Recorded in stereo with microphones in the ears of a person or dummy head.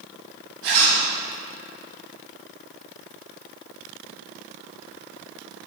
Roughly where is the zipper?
Right.